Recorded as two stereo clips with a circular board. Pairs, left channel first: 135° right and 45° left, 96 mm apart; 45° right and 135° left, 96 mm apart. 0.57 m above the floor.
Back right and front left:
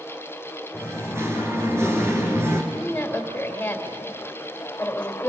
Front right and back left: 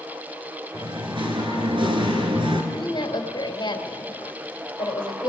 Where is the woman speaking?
65° right, 2.5 m.